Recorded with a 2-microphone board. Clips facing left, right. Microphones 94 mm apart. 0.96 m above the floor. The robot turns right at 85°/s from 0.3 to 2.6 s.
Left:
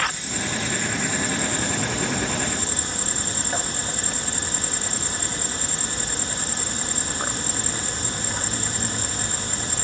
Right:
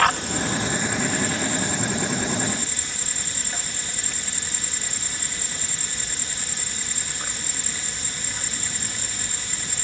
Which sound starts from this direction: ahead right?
An insect, at 0.0 s.